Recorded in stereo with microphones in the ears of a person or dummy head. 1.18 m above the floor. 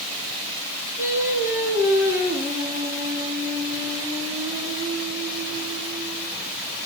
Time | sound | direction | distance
1.0 | singing | 20° right (ahead or behind) | 7 m